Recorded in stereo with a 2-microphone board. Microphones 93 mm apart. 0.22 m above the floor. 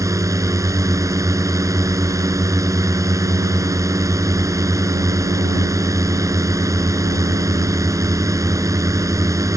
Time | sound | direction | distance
0.0 | a drone | 35° right (ahead or behind) | ?